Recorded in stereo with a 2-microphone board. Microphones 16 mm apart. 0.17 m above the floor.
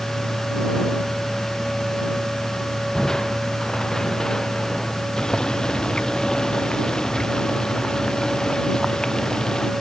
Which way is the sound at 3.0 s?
45° left (ahead or behind).